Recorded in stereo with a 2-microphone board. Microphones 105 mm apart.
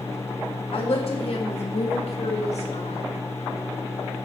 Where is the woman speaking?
65° left (ahead or behind), 2.5 m; by 3.0 s 85° left, 2.5 m.